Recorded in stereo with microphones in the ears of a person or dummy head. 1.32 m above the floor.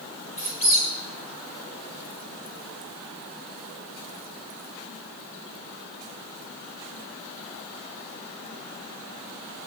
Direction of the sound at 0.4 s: 50° left (ahead or behind).